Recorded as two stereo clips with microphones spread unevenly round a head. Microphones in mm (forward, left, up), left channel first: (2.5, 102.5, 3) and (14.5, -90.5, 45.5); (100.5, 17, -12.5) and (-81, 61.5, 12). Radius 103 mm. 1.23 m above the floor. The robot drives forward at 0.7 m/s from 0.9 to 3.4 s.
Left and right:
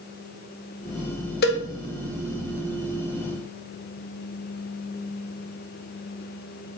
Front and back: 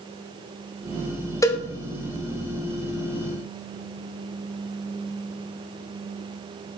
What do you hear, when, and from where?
1.4 s a cowbell: 60° left, 0.6 m; by 1.6 s 80° left, 0.5 m